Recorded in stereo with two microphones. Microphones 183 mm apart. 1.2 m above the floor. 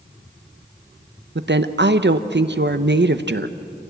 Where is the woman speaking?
70° right (ahead or behind), 0.7 m.